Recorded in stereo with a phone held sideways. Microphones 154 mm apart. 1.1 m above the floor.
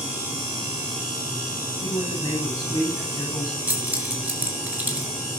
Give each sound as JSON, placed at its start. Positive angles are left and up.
{"t": 1.8, "sound": "a man speaking", "side_deg": 20, "distance_m": 10.0}
{"t": 3.7, "sound": "keys jangling", "side_deg": -10, "distance_m": 4.0}